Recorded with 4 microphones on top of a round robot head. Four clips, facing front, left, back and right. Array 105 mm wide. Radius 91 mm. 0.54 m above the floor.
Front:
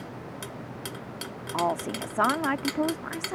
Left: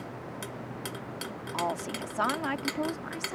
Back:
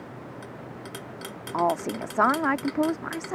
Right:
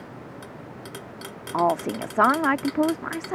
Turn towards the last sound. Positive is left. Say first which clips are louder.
# right 10 dB, back 3 dB
turn(degrees=-105)